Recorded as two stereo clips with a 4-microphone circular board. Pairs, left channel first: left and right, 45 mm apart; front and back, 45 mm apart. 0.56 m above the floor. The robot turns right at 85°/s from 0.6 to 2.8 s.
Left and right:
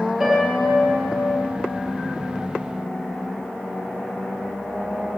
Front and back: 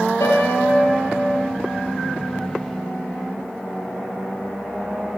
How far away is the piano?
About 6 m.